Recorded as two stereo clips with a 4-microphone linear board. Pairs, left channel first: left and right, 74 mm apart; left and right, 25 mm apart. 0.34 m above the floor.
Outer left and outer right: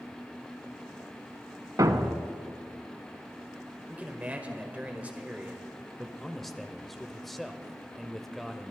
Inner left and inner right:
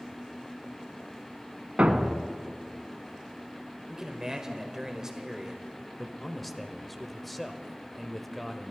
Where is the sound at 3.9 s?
20° right (ahead or behind), 1.5 m.